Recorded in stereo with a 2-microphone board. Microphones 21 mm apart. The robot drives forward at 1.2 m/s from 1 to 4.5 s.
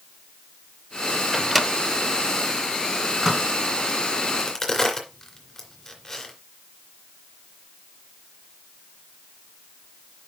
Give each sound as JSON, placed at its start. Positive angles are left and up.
{"t": 1.3, "sound": "a microwave", "side_deg": 0, "distance_m": 0.6}
{"t": 4.3, "sound": "a crack", "side_deg": 25, "distance_m": 2.0}